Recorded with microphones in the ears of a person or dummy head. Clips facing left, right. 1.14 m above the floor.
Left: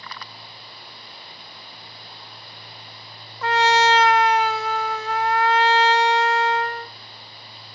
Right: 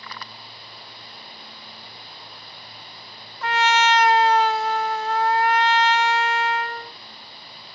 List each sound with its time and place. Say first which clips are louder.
3.4 s a trumpet: left 2 dB; 65° left (ahead or behind), 0.6 m